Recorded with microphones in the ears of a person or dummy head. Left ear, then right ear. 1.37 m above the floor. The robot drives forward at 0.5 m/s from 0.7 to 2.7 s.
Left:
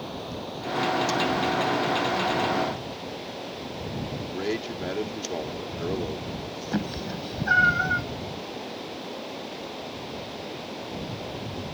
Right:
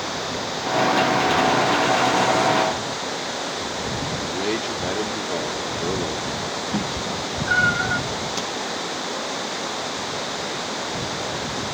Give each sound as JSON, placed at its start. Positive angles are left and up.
{"t": 0.0, "sound": "running water", "side_deg": -60}
{"t": 4.2, "sound": "a man speaking", "side_deg": -5}
{"t": 6.7, "sound": "a cat meowing", "side_deg": 5}